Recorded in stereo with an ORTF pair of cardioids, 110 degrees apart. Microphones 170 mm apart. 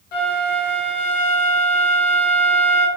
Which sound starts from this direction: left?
A flute, at 0.1 s.